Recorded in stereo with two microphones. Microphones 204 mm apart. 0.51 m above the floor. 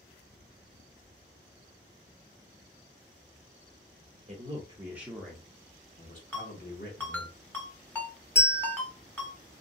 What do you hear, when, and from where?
4.3 s a man speaking: 30° right (ahead or behind), 0.8 m; by 7.3 s 60° left (ahead or behind), 1.3 m
6.3 s a ringtone: 10° left (ahead or behind), 1.5 m
8.3 s a bell: 55° left (ahead or behind), 1.1 m